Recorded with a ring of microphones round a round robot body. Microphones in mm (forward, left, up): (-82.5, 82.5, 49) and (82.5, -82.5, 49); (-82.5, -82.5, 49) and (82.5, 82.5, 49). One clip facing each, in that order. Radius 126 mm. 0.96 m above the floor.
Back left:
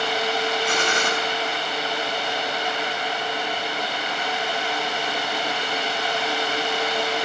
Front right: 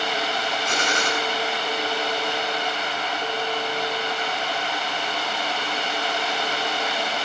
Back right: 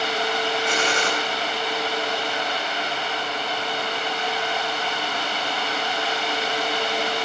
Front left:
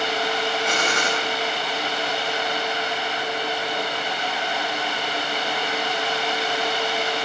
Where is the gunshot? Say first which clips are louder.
Back left 2 dB, back right 1 dB; 95° left, 6 m.